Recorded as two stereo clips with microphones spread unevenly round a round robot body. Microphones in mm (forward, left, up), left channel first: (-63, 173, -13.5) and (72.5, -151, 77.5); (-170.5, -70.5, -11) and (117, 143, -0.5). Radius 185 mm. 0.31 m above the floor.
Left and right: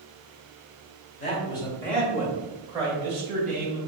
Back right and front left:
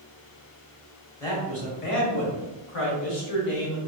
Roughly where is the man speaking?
Behind left.